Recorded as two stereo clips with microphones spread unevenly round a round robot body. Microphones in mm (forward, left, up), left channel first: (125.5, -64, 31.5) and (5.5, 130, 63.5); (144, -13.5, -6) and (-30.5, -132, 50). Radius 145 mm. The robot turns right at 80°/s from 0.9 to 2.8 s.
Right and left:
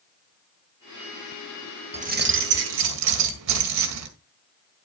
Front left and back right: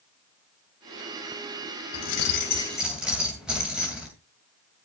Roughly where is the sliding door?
I don't hear a sliding door.